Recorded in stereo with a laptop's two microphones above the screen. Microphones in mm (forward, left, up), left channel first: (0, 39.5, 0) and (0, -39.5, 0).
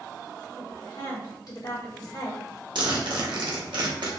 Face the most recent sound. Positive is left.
turn(degrees=-75)  # may be behind; listen again after turning